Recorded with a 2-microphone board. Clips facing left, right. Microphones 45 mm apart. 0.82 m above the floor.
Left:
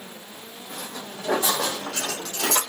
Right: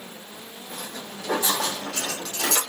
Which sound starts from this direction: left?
Footsteps, at 0.7 s.